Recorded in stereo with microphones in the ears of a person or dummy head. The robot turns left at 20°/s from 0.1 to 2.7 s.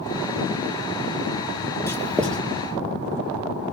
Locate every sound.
1.9 s writing: 15° left (ahead or behind), 1.7 m; by 2.4 s 5° left (ahead or behind), 1.7 m